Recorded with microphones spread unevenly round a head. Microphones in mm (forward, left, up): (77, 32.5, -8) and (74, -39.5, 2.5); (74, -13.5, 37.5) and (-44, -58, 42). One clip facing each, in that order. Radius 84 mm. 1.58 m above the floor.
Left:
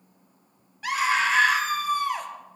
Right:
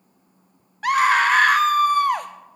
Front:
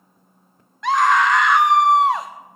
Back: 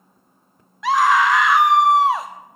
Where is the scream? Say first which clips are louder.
Right 7 dB, even; 75° right, 0.6 m.